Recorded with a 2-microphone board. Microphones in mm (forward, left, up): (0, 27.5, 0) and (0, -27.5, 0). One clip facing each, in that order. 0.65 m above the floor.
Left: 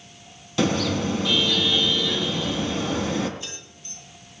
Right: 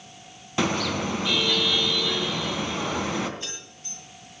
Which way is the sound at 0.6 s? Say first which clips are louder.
Left 2 dB; 25° right (ahead or behind).